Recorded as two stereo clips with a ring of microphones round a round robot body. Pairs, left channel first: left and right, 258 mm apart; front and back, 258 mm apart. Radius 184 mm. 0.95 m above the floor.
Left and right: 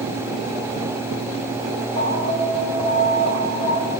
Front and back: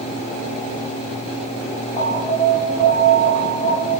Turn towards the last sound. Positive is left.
turn(degrees=-100)